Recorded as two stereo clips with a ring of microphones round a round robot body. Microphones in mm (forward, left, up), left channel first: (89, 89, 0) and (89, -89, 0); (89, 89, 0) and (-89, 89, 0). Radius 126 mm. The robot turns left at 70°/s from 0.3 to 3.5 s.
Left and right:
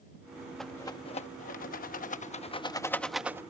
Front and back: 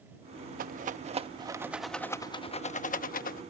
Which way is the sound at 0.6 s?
Straight behind.